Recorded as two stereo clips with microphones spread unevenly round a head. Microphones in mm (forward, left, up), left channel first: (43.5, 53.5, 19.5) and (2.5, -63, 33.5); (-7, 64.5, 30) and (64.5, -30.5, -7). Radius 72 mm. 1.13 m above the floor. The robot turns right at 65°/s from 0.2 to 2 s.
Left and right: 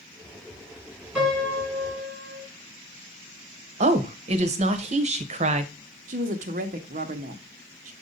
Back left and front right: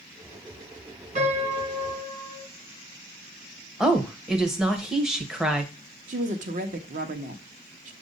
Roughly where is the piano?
Ahead right.